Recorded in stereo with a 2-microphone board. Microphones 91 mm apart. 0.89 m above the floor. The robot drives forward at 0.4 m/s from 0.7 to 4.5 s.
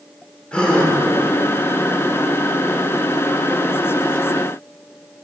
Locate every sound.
0.5 s a gasp: 10° left (ahead or behind), 1.0 m